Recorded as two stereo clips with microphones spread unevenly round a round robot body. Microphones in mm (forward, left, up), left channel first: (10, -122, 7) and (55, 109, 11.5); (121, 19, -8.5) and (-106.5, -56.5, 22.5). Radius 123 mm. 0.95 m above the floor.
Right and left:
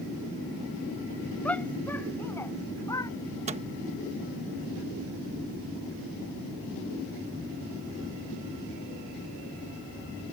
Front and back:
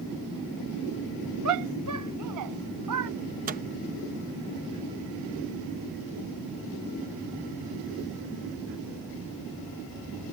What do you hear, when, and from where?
1.4 s a shout: 175° left; by 3.1 s straight behind
3.5 s a microwave: 140° left